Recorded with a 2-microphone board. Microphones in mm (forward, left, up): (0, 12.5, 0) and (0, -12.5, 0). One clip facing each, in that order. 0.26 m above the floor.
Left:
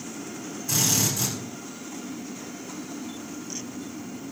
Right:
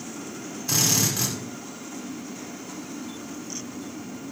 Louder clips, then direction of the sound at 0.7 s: Right 1 dB; 40° right (ahead or behind).